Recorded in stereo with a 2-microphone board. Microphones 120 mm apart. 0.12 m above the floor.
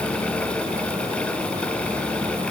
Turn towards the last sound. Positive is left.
No sound to turn to.